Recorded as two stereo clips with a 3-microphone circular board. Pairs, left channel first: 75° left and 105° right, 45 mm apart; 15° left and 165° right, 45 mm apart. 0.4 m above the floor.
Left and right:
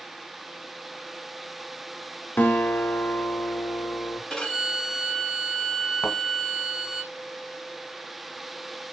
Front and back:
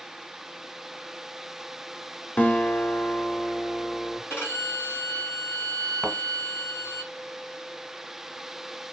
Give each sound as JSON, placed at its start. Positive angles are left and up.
{"t": 2.4, "sound": "a guitar", "azimuth_deg": 50, "distance_m": 0.9}
{"t": 4.3, "sound": "a violin", "azimuth_deg": 5, "distance_m": 2.5}
{"t": 6.0, "sound": "a thud", "azimuth_deg": 100, "distance_m": 1.0}